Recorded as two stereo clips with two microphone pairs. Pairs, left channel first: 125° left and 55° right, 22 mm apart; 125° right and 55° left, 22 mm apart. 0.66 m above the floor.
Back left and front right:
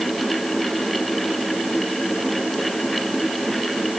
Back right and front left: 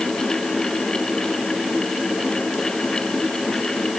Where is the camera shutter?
I don't hear a camera shutter.